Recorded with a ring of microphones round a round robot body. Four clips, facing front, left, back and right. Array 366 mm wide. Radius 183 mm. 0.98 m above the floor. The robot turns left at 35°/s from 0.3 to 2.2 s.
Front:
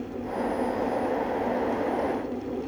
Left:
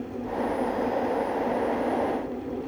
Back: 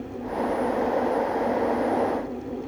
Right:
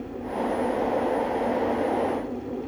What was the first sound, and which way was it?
Only background noise.